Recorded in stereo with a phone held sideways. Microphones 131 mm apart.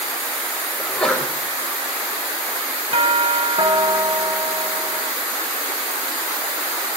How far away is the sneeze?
About 6 m.